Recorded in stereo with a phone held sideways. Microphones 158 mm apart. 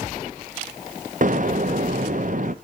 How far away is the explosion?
About 0.5 m.